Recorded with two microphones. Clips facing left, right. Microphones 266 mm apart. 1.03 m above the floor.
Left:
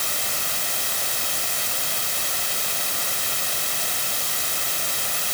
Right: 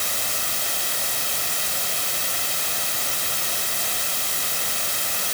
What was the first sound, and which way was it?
Only background noise.